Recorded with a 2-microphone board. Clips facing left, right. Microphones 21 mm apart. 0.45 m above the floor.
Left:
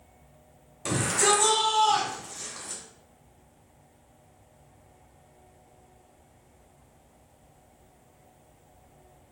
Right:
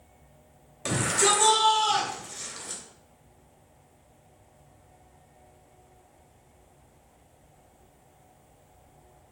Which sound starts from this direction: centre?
A shout, at 0.8 s.